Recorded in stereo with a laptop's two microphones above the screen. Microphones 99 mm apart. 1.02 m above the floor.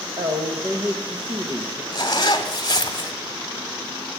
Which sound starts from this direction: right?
A woman speaking, at 0.2 s.